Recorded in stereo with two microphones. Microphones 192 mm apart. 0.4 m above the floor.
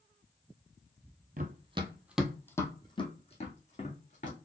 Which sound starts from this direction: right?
Running footsteps, at 1.4 s.